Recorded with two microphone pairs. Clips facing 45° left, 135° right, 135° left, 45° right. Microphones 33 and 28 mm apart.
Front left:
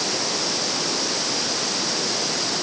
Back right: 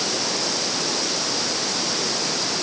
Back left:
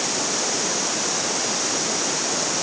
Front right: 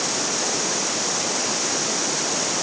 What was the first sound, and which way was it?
Only background noise.